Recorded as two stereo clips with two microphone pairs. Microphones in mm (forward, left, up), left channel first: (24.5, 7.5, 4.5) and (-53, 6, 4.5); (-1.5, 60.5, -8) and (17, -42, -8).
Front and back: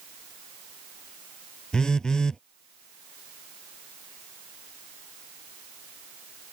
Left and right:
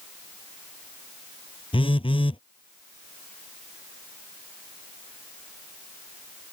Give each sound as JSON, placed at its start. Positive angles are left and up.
{"t": 1.7, "sound": "a phone buzzing", "azimuth_deg": 80}